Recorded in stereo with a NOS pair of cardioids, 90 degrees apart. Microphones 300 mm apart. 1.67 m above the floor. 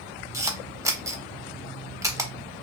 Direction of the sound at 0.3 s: 10° right.